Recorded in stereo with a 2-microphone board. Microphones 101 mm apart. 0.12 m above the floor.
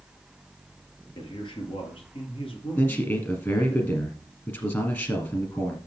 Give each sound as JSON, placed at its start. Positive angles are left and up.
{"t": 1.1, "sound": "a man speaking", "side_deg": 55, "distance_m": 3.0}
{"t": 2.8, "sound": "a man speaking", "side_deg": 25, "distance_m": 2.5}